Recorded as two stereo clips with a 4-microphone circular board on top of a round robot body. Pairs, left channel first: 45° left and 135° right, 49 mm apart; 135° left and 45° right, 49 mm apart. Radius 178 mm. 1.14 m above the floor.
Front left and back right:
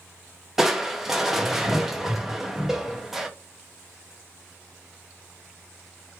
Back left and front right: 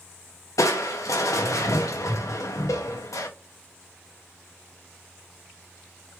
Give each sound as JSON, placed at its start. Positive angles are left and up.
{"t": 0.6, "sound": "crushing", "azimuth_deg": 145, "distance_m": 0.5}